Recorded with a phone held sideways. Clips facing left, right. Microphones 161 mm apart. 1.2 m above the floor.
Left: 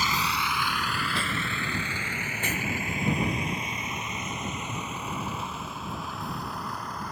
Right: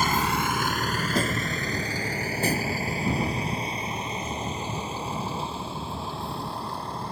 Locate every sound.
0.0 s a vehicle: 50° right (ahead or behind); by 7.1 s 30° right (ahead or behind)